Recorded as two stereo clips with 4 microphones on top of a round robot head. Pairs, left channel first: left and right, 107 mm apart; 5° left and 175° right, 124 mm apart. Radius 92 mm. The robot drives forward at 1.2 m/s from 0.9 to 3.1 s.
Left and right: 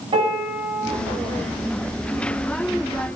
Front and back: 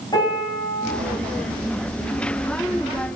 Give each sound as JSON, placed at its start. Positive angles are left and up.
{"t": 0.1, "sound": "a piano", "azimuth_deg": -60, "distance_m": 3.0}